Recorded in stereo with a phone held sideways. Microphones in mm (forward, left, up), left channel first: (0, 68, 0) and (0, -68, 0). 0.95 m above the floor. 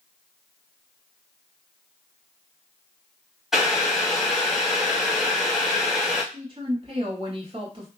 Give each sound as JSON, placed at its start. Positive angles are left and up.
{"t": 3.5, "sound": "boiling", "side_deg": -5, "distance_m": 1.1}
{"t": 6.3, "sound": "a woman speaking", "side_deg": -40, "distance_m": 1.6}